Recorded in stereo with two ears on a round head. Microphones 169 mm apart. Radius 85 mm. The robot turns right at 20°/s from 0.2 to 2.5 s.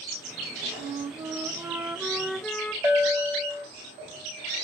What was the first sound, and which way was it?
A flute, 30° right.